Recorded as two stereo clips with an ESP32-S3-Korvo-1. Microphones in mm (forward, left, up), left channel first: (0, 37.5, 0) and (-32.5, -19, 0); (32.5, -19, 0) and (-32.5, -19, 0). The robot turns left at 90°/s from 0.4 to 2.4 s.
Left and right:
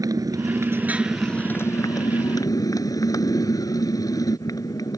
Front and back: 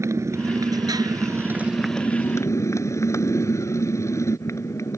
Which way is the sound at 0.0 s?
140° right.